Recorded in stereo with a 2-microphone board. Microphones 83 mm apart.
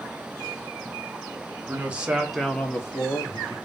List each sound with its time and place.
1.7 s a man speaking: 20° right (ahead or behind), 1.3 m; by 3.5 s 45° left (ahead or behind), 1.1 m